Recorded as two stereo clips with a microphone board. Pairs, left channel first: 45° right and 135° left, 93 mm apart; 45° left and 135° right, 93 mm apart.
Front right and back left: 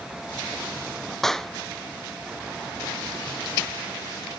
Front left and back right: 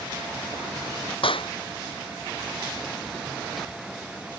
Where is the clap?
40° left.